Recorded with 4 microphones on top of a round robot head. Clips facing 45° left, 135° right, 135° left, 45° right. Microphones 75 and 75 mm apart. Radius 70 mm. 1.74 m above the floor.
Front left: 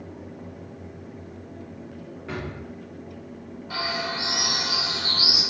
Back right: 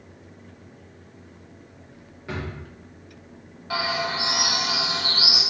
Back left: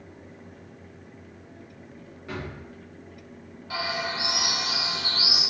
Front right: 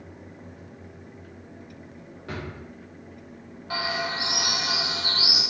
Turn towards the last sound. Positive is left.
turn(degrees=-90)